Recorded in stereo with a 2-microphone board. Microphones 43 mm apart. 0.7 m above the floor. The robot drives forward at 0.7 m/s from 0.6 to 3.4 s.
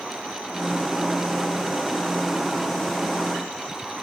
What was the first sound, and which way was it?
Only background noise.